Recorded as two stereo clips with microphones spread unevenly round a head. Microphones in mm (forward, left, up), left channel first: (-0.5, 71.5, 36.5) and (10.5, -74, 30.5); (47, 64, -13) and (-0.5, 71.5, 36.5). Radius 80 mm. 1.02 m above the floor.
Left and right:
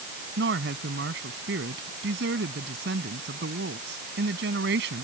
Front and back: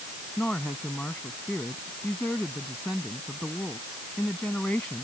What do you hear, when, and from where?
0.4 s a woman speaking: 95° right